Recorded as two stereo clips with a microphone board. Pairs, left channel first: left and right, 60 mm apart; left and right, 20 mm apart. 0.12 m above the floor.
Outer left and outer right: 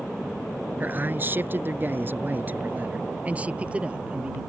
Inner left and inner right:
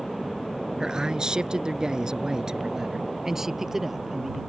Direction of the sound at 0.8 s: 35° right (ahead or behind).